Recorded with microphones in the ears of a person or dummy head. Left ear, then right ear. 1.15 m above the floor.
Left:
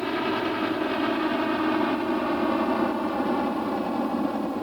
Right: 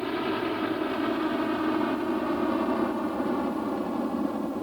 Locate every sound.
0.0 s a helicopter: 15° left (ahead or behind)